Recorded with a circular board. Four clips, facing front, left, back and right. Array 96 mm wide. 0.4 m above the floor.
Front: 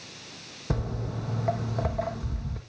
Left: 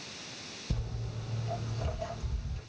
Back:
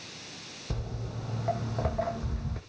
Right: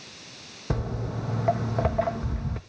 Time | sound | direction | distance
0.7 | footsteps | 60° right | 1.5 m